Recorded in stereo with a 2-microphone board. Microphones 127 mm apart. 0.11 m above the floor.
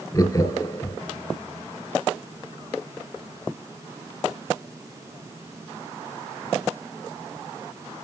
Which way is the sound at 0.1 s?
25° left (ahead or behind).